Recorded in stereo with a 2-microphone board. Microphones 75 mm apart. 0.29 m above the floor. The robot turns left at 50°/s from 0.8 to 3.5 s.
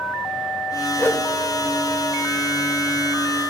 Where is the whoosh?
35° left (ahead or behind), 0.7 m; by 1.3 s 25° left (ahead or behind), 0.7 m.